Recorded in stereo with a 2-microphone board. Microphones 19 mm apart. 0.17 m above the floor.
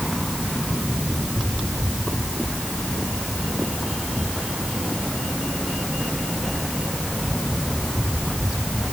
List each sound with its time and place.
Only background noise.